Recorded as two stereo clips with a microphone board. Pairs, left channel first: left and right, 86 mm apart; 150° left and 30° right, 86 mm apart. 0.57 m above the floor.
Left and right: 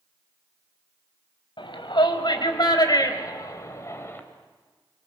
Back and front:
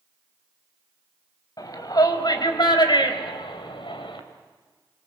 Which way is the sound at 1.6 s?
105° left.